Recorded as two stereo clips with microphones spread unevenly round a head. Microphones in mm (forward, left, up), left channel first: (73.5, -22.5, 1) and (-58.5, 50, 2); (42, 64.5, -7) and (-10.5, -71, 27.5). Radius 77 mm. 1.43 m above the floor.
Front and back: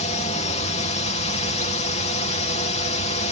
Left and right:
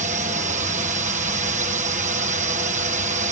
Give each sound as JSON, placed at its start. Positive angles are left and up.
{"t": 0.0, "sound": "a drone", "azimuth_deg": -70}